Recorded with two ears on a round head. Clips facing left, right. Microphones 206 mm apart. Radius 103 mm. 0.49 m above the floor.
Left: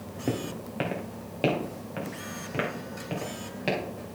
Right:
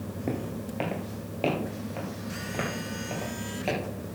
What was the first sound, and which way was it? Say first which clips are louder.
Footsteps: left 2 dB; 10° left (ahead or behind).